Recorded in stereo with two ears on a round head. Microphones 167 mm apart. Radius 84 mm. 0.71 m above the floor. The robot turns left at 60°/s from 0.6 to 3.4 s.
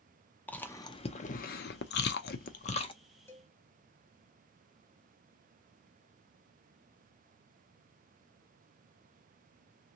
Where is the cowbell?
10° left (ahead or behind), 0.6 m; by 3.5 s 5° left (ahead or behind), 0.6 m.